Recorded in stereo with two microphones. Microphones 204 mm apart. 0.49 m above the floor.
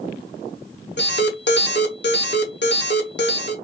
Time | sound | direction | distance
1.0 | an alarm | 60° left (ahead or behind) | 0.8 m